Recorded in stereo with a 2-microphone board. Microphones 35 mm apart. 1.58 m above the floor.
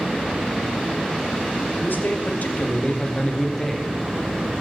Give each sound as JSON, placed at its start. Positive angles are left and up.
{"t": 1.8, "sound": "a man speaking", "side_deg": 75, "distance_m": 1.1}